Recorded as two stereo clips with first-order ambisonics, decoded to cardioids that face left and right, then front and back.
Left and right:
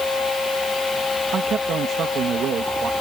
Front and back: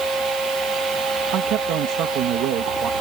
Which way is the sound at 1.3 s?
145° right.